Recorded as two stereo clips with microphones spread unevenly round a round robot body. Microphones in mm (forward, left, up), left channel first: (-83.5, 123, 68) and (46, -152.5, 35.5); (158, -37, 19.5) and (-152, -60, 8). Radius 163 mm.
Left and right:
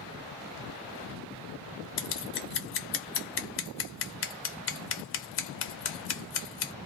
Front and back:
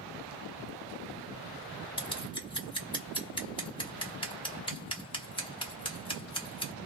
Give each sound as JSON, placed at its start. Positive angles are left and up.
{"t": 2.0, "sound": "scissors", "azimuth_deg": 75, "distance_m": 0.9}